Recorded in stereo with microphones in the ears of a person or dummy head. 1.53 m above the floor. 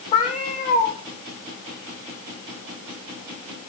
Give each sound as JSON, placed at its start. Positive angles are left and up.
{"t": 0.1, "sound": "a cat meowing", "side_deg": 45, "distance_m": 2.5}